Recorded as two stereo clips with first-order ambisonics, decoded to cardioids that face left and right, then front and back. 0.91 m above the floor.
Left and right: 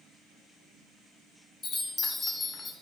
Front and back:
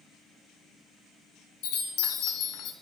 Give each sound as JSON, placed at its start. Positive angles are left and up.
{"t": 1.6, "sound": "a chime", "azimuth_deg": 20, "distance_m": 0.5}